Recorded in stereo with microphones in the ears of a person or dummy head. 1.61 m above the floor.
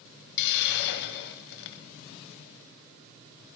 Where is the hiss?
60° left (ahead or behind), 0.7 m.